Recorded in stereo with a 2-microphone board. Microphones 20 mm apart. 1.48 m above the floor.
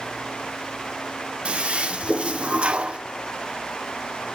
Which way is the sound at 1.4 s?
65° right (ahead or behind).